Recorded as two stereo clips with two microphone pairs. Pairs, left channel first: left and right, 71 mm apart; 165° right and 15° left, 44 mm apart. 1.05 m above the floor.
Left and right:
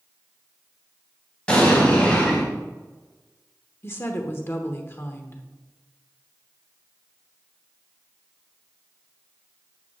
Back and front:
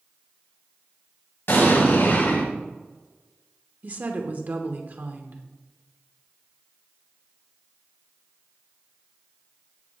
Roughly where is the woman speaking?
Ahead left.